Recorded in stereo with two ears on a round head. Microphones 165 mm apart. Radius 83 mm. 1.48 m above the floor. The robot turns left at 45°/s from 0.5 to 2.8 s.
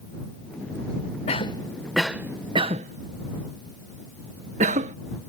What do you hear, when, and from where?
1.3 s a cough: 30° left (ahead or behind); by 5.0 s 35° right (ahead or behind)